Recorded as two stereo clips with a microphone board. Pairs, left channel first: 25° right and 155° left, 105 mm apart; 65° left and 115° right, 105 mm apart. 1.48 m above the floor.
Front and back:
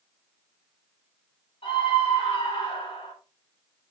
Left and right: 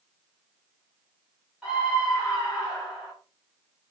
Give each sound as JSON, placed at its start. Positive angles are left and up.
{"t": 1.6, "sound": "a scream", "azimuth_deg": -30, "distance_m": 6.0}